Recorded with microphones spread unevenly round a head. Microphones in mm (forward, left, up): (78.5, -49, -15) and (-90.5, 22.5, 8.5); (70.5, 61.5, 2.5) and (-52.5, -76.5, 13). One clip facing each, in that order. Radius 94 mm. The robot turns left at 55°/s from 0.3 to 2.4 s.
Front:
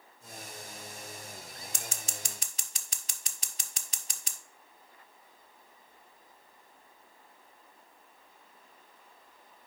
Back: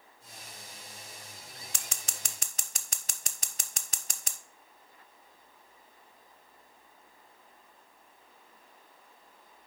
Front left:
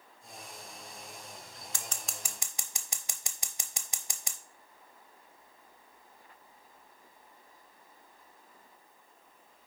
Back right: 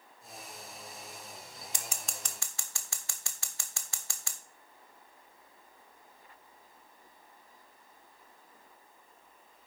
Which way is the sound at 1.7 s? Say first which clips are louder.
Front 4 dB, even; 160° left.